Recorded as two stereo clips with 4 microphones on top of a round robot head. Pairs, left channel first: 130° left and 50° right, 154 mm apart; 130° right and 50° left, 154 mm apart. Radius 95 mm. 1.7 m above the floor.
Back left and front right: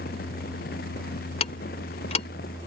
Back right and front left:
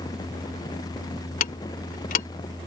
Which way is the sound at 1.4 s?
175° right.